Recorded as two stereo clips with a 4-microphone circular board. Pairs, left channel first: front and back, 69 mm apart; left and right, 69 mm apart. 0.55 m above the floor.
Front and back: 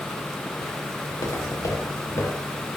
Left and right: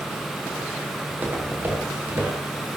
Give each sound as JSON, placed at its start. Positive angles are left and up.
{"t": 1.1, "sound": "footsteps", "azimuth_deg": -25, "distance_m": 7.0}